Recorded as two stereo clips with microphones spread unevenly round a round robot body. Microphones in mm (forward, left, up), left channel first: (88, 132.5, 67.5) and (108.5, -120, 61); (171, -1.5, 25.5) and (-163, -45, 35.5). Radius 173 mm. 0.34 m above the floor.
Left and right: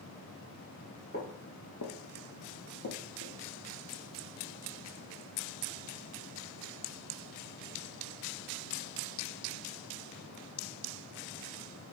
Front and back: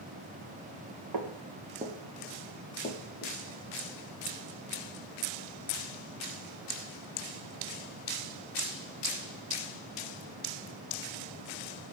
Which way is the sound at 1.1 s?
155° left.